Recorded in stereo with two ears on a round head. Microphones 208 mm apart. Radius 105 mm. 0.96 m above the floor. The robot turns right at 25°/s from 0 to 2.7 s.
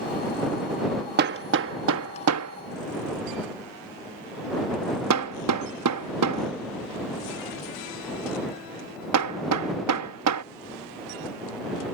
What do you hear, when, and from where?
1.2 s hammering: 45° right (ahead or behind); by 10.4 s 85° right